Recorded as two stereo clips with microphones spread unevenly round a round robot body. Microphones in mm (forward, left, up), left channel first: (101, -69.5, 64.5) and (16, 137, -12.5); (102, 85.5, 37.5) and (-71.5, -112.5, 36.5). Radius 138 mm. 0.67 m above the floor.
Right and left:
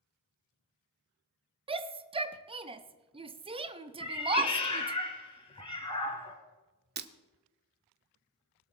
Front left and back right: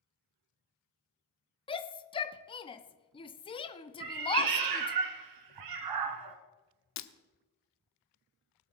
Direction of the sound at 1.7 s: 110° left.